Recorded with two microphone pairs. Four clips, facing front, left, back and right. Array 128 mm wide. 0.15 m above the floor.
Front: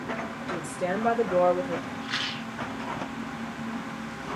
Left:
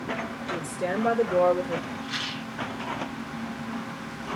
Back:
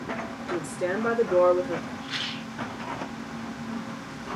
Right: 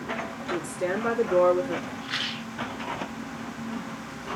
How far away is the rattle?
About 0.8 m.